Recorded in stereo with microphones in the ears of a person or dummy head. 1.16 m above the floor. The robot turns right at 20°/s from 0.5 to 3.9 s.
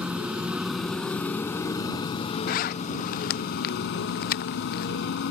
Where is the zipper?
40° left (ahead or behind); by 4.9 s 45° left (ahead or behind).